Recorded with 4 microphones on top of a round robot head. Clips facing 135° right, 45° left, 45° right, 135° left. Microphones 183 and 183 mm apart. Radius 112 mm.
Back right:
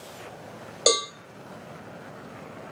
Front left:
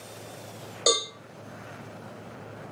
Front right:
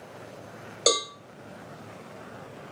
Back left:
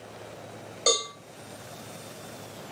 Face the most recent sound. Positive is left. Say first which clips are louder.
# back right 3 dB, front right 2 dB
turn(degrees=-85)